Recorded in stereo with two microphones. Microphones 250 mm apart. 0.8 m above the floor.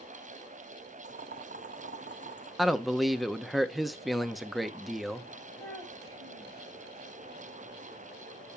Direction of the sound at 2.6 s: Centre (ahead or behind).